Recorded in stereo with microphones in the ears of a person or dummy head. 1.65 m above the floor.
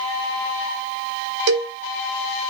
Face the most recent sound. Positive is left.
turn(degrees=-60)  # may be behind; listen again after turning